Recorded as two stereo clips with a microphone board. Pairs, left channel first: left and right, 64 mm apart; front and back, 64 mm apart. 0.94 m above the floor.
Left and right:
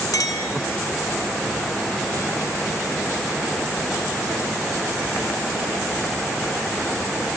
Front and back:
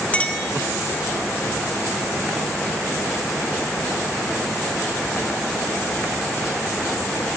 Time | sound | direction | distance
0.1 | a clink | 70° left | 0.6 m